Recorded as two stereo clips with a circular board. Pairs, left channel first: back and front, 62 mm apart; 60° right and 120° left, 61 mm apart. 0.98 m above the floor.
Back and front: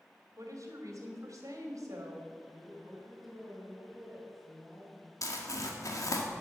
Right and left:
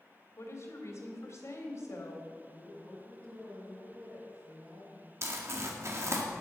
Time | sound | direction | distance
0.4 | a woman speaking | 25° right | 3 m
2.5 | a woman speaking | 95° left | 5.5 m
5.2 | crumpling | 160° left | 1.9 m